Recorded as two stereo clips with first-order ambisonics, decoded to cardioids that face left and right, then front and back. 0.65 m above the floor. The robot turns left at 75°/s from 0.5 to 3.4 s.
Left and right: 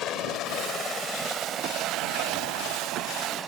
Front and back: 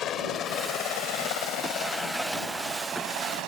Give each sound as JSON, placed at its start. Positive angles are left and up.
{"t": 0.0, "sound": "a helicopter", "azimuth_deg": 45}